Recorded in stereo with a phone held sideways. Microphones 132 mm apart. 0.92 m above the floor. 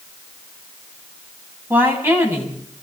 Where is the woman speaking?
15° right (ahead or behind), 5.5 m.